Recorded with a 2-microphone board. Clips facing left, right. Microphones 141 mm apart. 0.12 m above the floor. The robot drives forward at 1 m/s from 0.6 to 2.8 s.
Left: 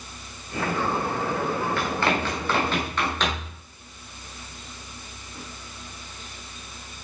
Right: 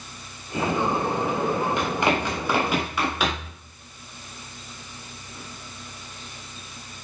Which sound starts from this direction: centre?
Running footsteps, at 1.8 s.